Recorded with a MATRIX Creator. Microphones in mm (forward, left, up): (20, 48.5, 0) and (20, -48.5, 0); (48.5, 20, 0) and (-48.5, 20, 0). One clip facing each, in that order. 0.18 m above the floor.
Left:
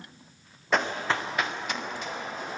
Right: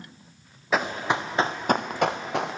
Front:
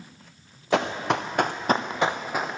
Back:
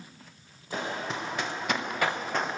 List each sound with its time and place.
0.7 s running footsteps: 5° right, 1.5 m; by 2.6 s 90° right, 1.5 m